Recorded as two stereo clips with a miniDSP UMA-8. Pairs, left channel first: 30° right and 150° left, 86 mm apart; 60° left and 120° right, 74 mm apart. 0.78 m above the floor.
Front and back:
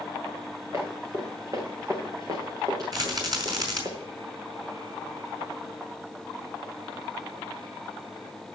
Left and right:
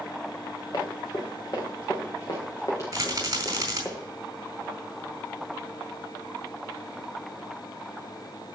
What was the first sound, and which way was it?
Running footsteps, 90° left.